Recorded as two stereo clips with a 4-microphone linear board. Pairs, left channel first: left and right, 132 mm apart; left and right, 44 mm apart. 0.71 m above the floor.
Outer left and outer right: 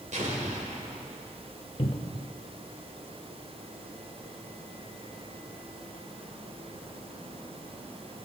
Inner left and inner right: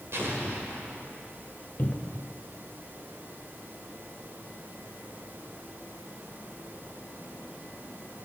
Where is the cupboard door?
45° left (ahead or behind), 0.8 m.